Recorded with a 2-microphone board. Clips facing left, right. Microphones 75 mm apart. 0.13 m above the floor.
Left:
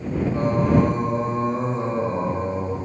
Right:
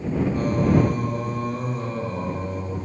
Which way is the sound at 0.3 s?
25° left (ahead or behind).